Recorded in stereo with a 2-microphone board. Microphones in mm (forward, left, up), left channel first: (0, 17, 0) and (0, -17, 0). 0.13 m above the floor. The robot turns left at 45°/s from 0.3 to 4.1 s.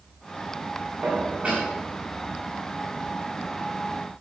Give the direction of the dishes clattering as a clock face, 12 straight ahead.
4 o'clock.